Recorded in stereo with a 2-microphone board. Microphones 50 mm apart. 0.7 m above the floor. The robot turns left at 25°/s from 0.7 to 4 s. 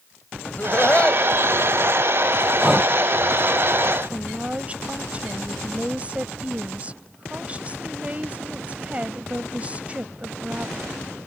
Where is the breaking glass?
I don't hear breaking glass.